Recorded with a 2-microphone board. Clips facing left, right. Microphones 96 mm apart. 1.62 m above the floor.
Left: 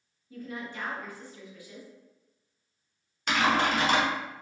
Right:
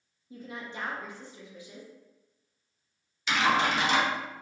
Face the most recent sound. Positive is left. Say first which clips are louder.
# even
turn(degrees=50)  # may be behind; listen again after turning